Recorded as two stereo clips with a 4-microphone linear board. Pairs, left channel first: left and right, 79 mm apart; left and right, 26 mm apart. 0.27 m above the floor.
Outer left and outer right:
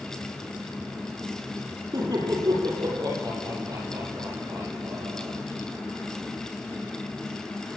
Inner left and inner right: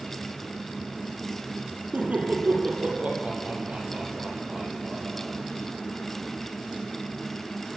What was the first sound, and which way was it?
Laughter, 60° right (ahead or behind).